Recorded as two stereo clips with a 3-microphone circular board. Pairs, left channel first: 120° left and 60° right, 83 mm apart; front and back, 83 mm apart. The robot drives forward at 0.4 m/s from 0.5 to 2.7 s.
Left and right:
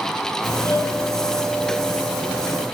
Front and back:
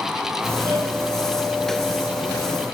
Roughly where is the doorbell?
Ahead left.